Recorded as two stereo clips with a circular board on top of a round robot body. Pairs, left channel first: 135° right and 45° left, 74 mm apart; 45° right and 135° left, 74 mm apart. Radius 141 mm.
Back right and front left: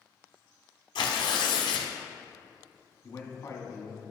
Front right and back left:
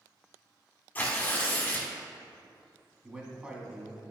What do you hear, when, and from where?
0.9 s tearing paper: 115° right, 0.8 m
3.0 s a man speaking: 155° right, 1.7 m